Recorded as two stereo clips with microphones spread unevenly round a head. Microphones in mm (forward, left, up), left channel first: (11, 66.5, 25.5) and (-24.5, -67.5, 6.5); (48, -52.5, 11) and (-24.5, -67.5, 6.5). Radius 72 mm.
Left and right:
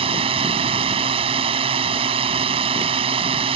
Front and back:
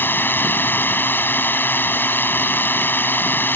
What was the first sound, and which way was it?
A drone, 50° right.